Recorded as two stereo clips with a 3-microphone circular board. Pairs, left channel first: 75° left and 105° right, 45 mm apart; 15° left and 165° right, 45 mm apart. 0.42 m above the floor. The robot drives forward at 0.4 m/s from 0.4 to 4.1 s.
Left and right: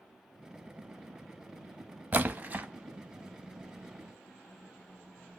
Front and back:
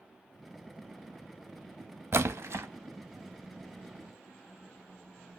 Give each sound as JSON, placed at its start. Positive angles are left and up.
{"t": 2.1, "sound": "a splash", "azimuth_deg": -150, "distance_m": 0.5}